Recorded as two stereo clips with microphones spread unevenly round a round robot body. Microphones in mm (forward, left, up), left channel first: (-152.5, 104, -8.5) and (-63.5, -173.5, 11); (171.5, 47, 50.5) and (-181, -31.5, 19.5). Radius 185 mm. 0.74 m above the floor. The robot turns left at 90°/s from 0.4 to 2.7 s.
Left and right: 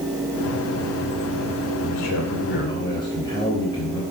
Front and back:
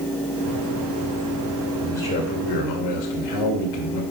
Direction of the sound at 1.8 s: 110° left.